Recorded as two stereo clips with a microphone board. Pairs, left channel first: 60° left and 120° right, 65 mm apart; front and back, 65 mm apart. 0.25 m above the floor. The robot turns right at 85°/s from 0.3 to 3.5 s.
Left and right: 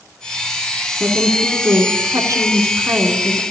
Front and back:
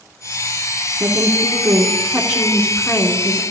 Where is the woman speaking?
155° left, 2.5 m; by 3.4 s straight ahead, 2.5 m.